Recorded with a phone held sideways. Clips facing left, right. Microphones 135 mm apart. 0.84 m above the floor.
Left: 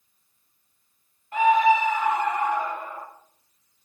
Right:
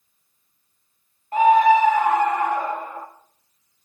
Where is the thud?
No thud in this recording.